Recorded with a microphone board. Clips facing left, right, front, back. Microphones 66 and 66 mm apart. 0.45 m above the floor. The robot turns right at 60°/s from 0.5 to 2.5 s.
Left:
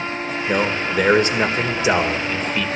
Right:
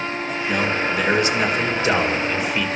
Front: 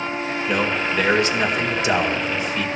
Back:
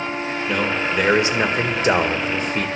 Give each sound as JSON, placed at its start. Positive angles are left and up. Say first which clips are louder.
{"t": 0.5, "sound": "a man speaking", "louder": "left 1 dB, even", "azimuth_deg": 75, "distance_m": 1.7}